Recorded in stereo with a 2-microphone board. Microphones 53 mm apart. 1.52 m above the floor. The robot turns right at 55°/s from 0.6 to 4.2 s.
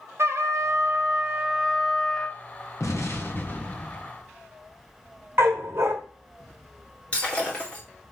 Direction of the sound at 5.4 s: 50° right (ahead or behind).